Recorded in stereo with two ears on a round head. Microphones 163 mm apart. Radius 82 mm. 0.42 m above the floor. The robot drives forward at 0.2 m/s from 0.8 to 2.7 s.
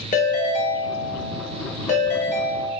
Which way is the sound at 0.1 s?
45° left (ahead or behind).